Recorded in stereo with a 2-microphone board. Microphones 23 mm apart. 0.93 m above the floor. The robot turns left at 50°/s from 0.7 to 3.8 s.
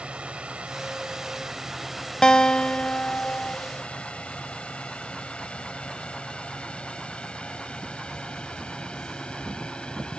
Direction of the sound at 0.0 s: 60° right (ahead or behind).